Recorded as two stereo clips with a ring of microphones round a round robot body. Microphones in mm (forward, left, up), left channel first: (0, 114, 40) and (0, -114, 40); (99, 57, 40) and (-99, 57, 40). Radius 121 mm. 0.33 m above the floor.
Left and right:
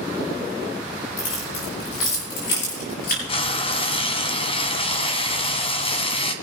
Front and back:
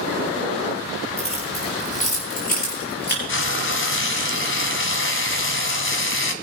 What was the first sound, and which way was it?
Keys jangling, 60° left.